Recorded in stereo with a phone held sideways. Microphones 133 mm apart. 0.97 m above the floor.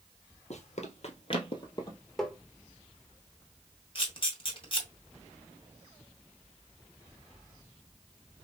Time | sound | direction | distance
0.5 | running footsteps | 60° left (ahead or behind) | 1.7 m
2.2 | tapping | 5° left (ahead or behind) | 1.1 m
4.0 | a camera shutter | 45° left (ahead or behind) | 1.8 m